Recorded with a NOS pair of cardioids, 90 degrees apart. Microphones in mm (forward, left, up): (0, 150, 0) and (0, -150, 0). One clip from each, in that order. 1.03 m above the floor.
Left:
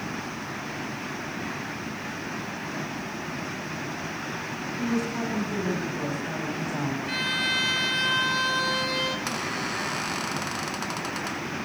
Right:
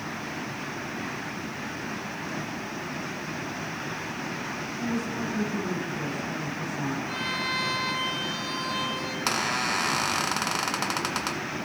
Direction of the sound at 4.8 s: 30° left.